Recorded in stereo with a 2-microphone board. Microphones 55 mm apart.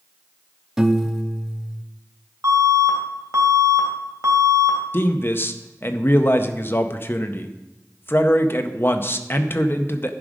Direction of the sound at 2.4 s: 60° right (ahead or behind).